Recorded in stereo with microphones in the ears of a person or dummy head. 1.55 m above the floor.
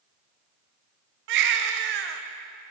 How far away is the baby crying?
About 0.8 m.